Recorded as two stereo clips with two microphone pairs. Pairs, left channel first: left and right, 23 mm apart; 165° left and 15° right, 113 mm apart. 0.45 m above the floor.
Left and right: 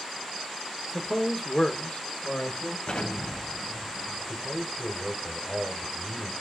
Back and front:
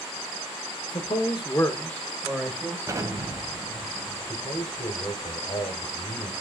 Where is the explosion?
50° left, 1.2 m.